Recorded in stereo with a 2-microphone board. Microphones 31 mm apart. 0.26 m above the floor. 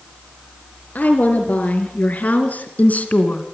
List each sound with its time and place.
0.9 s a woman speaking: 60° left (ahead or behind), 4 m; by 3.4 s 50° left (ahead or behind), 2 m